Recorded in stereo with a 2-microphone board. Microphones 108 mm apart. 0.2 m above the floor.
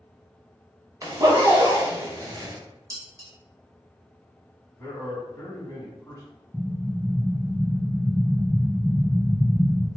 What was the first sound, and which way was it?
A zipper, 35° right (ahead or behind).